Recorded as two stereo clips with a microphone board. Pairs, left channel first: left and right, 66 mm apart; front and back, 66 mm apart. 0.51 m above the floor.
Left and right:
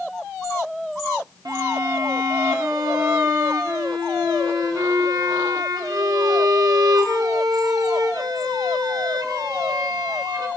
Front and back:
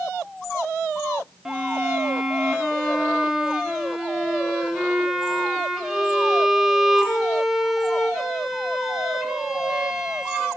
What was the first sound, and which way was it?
A violin, 95° right.